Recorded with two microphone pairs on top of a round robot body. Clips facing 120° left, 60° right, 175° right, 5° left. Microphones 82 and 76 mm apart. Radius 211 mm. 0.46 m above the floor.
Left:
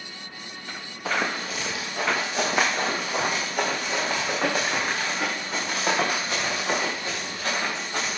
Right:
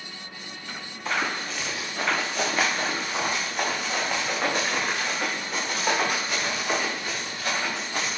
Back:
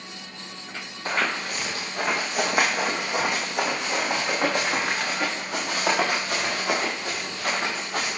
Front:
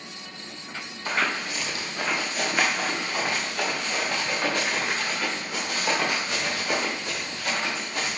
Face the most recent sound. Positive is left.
turn(degrees=175)